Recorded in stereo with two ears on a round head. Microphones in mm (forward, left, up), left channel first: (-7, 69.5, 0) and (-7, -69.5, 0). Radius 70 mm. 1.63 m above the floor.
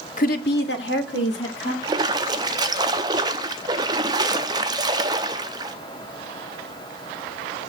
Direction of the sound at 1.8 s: 25° right (ahead or behind).